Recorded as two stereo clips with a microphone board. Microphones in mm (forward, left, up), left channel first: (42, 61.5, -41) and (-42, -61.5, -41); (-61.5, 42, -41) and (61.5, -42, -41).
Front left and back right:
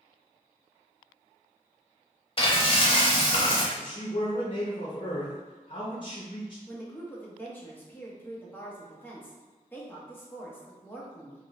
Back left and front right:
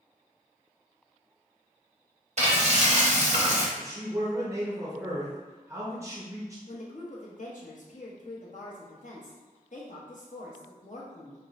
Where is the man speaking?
25° left, 0.7 m.